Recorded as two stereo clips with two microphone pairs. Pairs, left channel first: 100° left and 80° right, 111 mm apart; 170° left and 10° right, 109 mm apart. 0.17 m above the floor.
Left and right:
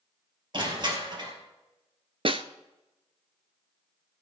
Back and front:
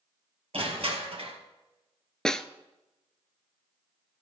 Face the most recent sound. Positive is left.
turn(degrees=-105)